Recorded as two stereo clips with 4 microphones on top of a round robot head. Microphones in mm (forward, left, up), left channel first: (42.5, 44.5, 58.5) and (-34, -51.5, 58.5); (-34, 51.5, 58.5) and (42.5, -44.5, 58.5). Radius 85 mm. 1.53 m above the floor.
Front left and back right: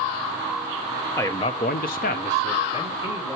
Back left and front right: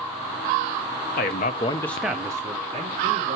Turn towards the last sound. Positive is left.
turn(degrees=-5)